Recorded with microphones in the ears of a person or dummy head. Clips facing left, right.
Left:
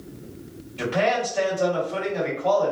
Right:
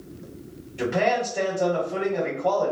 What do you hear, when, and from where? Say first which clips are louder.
0.8 s a man speaking: even; 15° right (ahead or behind), 1.7 m